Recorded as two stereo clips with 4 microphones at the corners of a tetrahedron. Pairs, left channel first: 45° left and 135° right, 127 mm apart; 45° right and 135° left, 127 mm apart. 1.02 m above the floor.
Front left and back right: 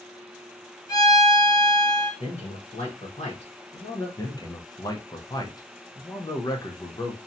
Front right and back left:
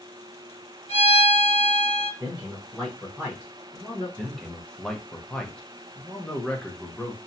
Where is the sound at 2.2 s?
50° left, 0.9 m.